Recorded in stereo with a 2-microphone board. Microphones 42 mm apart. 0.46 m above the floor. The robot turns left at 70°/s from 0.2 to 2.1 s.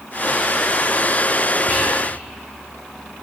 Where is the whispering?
45° left (ahead or behind), 1.8 m; by 1.9 s 35° left (ahead or behind), 1.8 m.